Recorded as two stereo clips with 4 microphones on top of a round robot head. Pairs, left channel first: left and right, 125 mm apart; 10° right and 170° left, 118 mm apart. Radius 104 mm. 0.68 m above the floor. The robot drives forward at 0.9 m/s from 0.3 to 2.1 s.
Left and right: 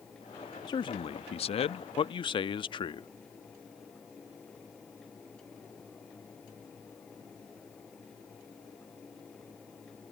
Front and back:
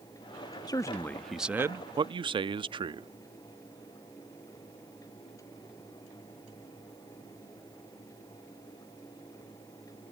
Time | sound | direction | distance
0.7 | a man speaking | 40° left | ?